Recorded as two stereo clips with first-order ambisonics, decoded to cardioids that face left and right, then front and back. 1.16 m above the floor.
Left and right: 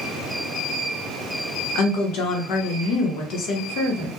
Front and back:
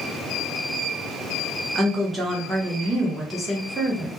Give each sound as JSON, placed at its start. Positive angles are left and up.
{"t": 1.8, "sound": "a woman speaking", "azimuth_deg": 105, "distance_m": 0.8}